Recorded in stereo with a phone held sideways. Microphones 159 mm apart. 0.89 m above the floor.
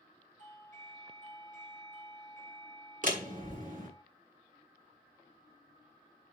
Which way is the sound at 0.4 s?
55° right (ahead or behind).